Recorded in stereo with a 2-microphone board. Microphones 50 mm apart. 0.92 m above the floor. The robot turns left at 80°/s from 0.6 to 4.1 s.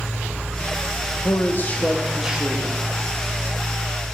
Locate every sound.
1.2 s a man speaking: 70° left, 1.2 m; by 2.8 s 50° right, 1.2 m